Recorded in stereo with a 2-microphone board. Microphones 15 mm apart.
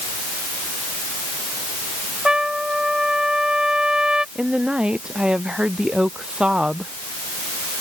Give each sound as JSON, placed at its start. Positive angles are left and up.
{"t": 2.2, "sound": "a trumpet", "side_deg": -60}
{"t": 4.3, "sound": "a woman speaking", "side_deg": -80}